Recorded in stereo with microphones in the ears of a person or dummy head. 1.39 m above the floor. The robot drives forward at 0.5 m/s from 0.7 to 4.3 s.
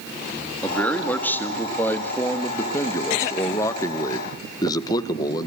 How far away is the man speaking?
About 3 m.